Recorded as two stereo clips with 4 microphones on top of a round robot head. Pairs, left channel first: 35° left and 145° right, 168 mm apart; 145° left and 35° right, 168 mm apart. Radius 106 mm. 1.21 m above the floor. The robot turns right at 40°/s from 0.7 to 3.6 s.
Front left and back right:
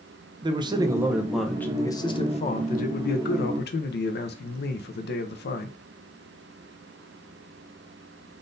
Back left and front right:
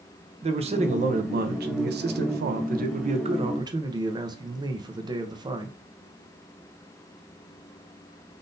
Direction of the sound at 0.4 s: 85° right.